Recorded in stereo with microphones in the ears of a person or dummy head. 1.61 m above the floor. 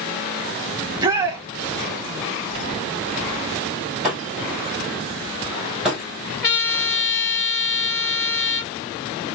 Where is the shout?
20° right (ahead or behind), 0.9 m.